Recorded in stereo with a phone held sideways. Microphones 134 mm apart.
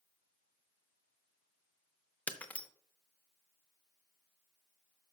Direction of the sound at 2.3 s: 10° left (ahead or behind).